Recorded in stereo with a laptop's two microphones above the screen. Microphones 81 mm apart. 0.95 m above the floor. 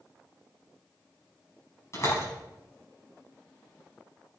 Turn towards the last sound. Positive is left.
turn(degrees=40)  # may be behind; listen again after turning